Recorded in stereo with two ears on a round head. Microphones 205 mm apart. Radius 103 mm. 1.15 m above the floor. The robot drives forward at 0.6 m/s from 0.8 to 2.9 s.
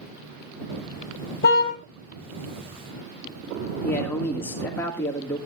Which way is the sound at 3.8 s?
10° left (ahead or behind).